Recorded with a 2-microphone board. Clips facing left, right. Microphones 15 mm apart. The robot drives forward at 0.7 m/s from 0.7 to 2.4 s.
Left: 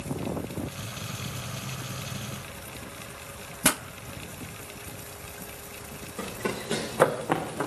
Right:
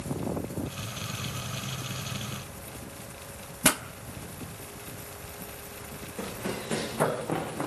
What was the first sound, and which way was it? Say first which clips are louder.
A pop: even; 20° right (ahead or behind).